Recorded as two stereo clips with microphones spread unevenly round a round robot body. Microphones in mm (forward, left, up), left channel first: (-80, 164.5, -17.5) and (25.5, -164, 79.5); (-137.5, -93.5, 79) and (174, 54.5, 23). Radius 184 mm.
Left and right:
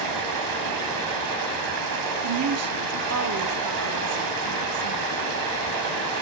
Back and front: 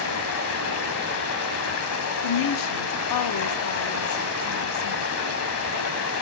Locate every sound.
0.0 s running water: 105° right, 3 m
2.2 s a woman speaking: 125° right, 1.4 m